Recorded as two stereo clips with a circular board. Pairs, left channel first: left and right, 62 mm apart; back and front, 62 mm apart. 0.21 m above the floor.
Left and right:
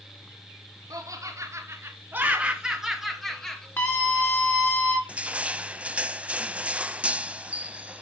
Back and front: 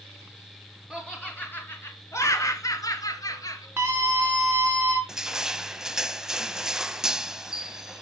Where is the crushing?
65° right, 0.7 m.